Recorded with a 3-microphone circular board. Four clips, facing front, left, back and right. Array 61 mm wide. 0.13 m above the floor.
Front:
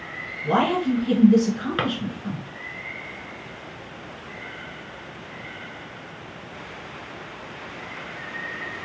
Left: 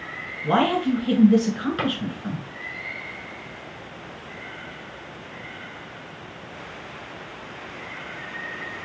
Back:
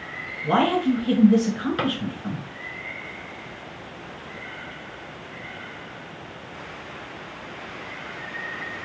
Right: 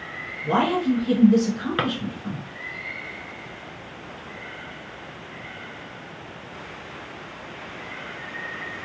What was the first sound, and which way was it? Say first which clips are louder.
A man speaking: left 1 dB, back 1 dB; 120° left.